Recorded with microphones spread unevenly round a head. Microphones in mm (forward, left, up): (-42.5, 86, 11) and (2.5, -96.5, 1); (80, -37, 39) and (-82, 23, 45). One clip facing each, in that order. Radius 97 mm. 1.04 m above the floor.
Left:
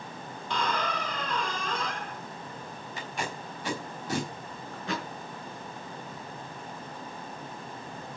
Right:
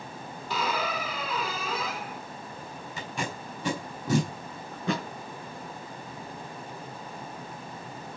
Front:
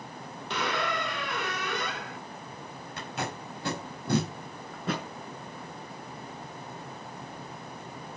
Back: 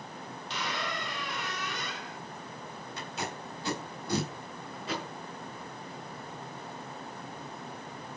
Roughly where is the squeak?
Ahead.